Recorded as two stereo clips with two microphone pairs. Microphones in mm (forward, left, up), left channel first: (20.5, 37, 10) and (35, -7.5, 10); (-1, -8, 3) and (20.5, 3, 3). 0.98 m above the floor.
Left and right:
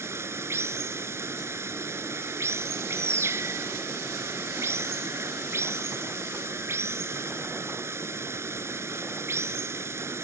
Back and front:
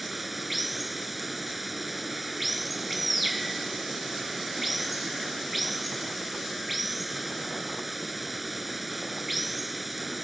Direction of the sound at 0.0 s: 60° right.